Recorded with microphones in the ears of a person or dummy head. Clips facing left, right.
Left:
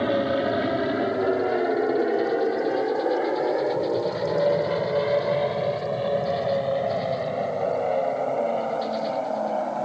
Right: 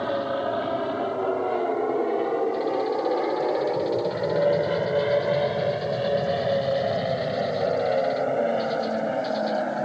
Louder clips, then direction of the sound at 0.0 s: Left 3 dB; 30° left (ahead or behind).